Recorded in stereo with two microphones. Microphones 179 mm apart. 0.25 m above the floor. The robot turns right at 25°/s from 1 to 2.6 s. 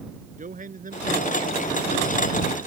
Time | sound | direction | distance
0.4 | a man speaking | 125° right | ?